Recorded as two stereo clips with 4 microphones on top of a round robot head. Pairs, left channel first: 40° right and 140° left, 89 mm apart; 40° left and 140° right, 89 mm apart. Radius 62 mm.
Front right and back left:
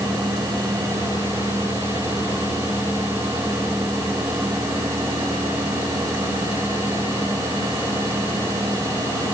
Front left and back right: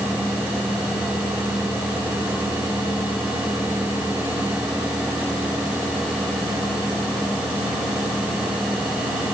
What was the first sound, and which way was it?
Only background noise.